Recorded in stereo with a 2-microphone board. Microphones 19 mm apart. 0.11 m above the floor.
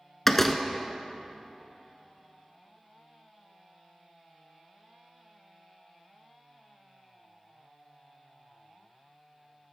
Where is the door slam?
15° left (ahead or behind), 0.8 m.